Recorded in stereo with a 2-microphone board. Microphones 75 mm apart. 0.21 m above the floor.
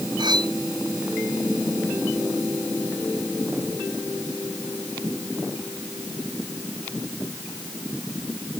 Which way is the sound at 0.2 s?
85° right.